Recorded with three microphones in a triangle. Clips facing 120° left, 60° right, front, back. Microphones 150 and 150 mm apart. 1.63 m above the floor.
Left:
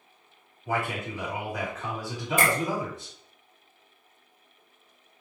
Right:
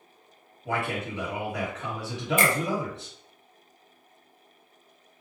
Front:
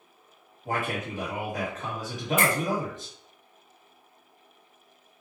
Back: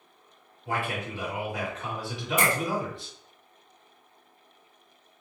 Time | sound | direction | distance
0.7 | a man speaking | 45° right | 1.3 m
2.4 | a finger snap | 115° left | 0.9 m